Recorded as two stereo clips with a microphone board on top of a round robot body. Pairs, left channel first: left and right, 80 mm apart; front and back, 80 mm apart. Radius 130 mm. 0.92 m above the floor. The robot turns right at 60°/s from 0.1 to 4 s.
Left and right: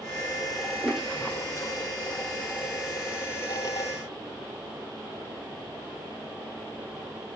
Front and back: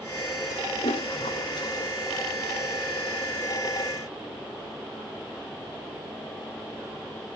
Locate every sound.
0.8 s a toilet flushing: 10° right, 0.8 m; by 1.9 s 55° left, 0.8 m